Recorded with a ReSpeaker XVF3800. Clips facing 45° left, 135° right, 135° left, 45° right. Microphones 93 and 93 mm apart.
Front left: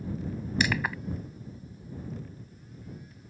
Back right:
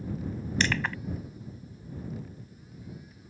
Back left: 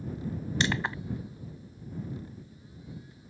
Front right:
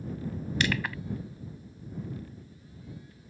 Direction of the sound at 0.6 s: 115° left.